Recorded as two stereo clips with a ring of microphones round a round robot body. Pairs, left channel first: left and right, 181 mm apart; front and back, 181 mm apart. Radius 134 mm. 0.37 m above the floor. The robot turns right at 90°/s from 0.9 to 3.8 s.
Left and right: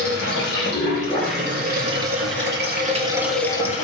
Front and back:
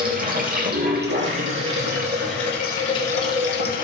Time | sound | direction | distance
0.0 | running water | 140° left | 3 m